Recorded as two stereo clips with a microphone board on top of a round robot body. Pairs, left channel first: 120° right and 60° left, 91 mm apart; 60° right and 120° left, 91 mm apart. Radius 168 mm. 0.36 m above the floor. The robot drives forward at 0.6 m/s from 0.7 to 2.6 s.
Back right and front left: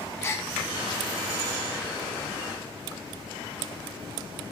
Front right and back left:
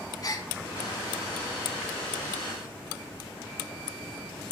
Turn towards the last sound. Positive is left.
turn(degrees=-140)